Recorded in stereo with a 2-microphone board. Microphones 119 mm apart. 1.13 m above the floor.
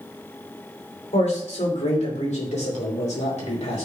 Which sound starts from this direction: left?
A man speaking, at 1.1 s.